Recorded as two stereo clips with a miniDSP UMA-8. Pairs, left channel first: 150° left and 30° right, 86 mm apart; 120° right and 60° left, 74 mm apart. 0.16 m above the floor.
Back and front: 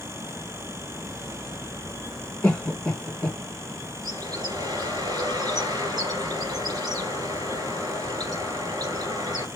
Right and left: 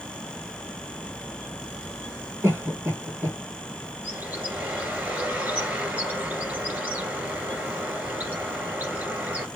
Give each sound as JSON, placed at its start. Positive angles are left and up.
{"t": 2.4, "sound": "a cough", "azimuth_deg": 90, "distance_m": 1.9}
{"t": 4.0, "sound": "a bird", "azimuth_deg": 0, "distance_m": 2.0}